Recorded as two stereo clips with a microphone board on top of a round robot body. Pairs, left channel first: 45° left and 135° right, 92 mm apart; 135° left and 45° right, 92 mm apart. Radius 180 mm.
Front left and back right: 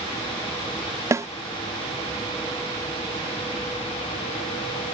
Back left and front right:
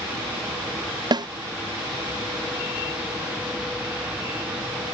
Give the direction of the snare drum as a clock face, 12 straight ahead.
3 o'clock.